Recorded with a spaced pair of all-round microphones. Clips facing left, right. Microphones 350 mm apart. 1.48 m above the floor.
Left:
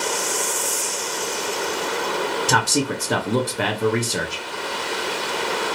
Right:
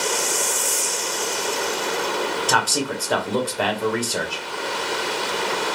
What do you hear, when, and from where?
2.5 s a man speaking: 30° left (ahead or behind), 0.7 m